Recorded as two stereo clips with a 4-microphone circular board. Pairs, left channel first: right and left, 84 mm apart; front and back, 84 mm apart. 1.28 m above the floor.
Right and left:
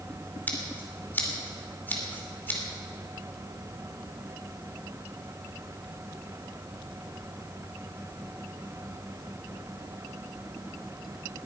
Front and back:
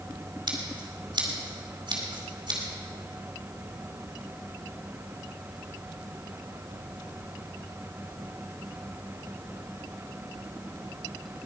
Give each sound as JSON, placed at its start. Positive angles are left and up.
{"t": 0.5, "sound": "scissors", "azimuth_deg": -160, "distance_m": 2.5}